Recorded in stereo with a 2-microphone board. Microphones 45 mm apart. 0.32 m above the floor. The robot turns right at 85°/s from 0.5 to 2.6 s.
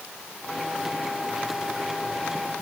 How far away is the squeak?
I don't hear a squeak.